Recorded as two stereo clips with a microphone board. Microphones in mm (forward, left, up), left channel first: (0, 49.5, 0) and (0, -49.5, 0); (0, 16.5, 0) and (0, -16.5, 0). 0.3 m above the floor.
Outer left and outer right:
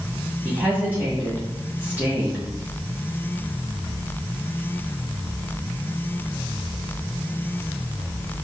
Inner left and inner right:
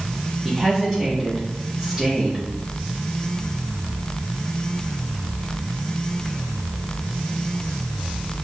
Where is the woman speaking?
20° right (ahead or behind), 1.9 m.